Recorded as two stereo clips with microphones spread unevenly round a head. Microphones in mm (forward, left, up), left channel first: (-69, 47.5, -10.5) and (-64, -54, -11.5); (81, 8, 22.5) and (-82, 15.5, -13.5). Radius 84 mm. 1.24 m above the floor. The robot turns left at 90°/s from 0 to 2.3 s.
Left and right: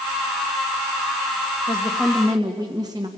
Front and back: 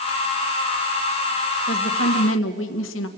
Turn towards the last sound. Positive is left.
turn(degrees=-20)